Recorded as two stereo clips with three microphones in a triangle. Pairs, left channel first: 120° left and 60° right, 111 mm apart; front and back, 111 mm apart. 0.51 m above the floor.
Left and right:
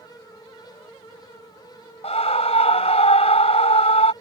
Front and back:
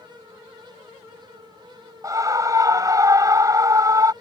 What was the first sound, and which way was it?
A scream, 125° left.